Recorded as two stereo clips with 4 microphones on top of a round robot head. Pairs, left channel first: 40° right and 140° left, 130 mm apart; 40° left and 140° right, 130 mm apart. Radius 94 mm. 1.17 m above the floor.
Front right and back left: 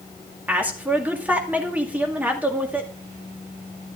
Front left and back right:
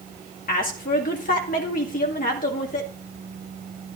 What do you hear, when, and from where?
0.5 s a woman speaking: 60° left, 1.9 m